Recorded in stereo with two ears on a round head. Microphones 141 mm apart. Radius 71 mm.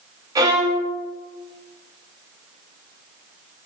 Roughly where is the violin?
Right.